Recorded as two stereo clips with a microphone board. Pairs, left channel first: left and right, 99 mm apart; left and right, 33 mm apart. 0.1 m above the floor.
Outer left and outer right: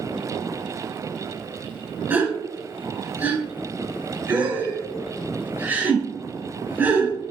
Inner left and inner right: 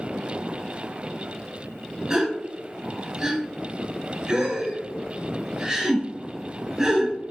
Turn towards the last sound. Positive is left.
turn(degrees=-20)  # may be behind; listen again after turning